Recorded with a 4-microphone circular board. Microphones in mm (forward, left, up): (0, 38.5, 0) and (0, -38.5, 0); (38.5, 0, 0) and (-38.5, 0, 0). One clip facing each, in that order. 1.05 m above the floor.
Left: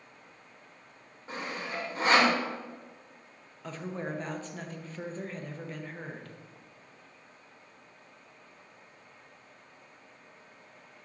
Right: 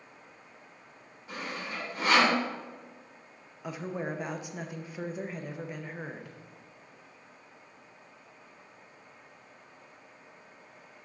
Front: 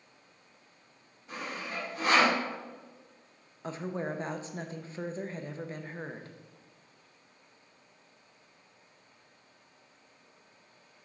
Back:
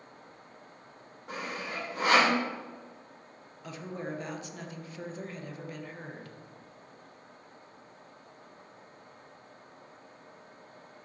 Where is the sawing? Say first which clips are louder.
Left 1 dB, back 1 dB; 150° left, 3 m.